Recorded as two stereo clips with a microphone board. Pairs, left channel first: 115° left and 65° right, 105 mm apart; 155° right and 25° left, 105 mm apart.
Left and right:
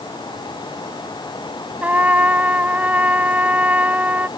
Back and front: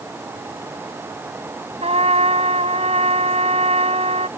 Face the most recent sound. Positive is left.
turn(degrees=10)